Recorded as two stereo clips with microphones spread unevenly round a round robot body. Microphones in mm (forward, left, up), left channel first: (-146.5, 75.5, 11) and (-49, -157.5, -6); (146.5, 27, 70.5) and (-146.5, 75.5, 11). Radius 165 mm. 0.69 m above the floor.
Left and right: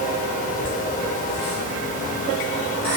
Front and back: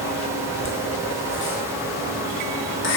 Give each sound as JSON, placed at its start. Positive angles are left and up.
{"t": 0.6, "sound": "laughter", "azimuth_deg": 40, "distance_m": 0.8}